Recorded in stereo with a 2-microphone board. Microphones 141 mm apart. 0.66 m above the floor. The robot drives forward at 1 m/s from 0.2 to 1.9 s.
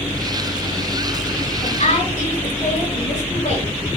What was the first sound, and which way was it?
A woman speaking, 65° left (ahead or behind).